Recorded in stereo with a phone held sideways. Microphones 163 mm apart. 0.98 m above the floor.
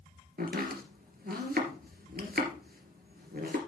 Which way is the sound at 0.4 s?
70° right (ahead or behind).